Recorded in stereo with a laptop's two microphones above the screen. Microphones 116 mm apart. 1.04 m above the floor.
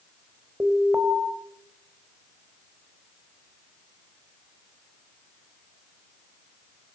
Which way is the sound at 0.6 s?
15° right (ahead or behind).